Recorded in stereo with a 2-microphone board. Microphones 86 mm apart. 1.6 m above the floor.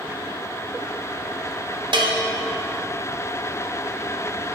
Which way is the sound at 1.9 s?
65° right (ahead or behind).